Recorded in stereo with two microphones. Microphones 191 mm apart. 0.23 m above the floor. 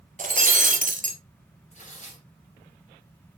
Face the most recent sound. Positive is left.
turn(degrees=40)  # may be behind; listen again after turning